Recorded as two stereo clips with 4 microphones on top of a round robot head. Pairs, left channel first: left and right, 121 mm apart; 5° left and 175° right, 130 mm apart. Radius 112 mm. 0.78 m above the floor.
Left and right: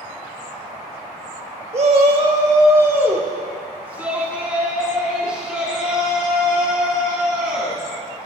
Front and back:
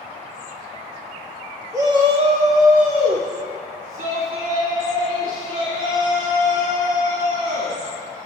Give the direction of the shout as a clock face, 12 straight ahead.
4 o'clock.